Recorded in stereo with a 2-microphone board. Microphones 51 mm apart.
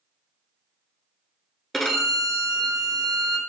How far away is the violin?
About 0.5 m.